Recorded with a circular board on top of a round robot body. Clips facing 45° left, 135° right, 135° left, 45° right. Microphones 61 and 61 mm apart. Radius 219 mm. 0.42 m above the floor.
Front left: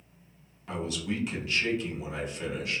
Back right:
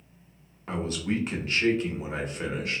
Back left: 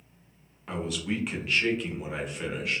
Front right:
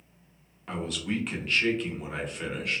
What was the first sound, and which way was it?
A man speaking, 140° right.